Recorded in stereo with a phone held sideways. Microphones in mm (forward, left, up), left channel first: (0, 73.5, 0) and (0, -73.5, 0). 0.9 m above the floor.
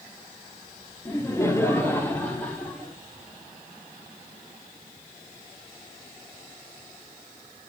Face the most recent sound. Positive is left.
turn(degrees=10)  # may be behind; listen again after turning